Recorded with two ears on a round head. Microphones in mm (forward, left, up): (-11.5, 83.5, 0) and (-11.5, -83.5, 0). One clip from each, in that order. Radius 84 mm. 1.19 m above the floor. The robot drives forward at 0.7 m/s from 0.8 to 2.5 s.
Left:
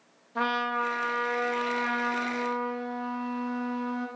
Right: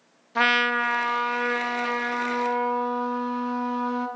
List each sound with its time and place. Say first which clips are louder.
0.3 s a trumpet: right 7 dB; 60° right (ahead or behind), 0.7 m; by 4.1 s 20° right (ahead or behind), 1.6 m